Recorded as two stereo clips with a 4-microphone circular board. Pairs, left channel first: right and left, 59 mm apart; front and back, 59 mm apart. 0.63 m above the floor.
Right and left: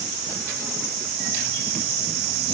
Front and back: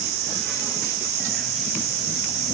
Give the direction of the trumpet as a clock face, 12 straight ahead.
No trumpet in this recording.